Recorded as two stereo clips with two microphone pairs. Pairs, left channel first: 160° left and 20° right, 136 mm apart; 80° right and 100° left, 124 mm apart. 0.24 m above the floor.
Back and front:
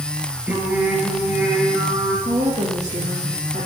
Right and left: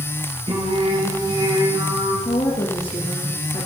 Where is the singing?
60° left, 5 m.